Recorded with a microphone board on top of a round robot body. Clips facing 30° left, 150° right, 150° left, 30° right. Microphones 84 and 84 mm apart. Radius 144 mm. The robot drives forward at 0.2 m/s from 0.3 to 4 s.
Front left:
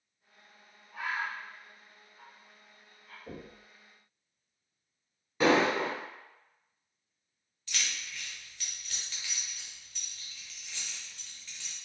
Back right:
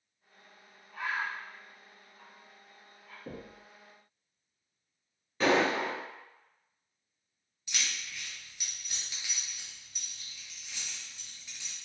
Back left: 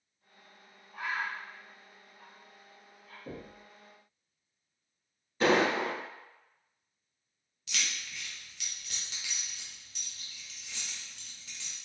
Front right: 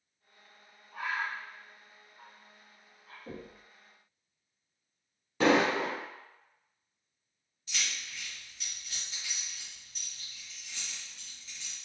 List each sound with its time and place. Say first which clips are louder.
0.9 s a bird: even, front right 1 dB; 50° right, 1.1 m; by 3.2 s 75° right, 0.9 m
3.3 s knocking: back right 1 dB, back left 1 dB; 135° right, 0.9 m; by 3.6 s 140° right, 0.9 m
5.4 s an explosion: front left 1 dB, front right 1 dB; 45° right, 0.8 m
7.7 s keys jangling: even, back left 1 dB; 135° left, 0.7 m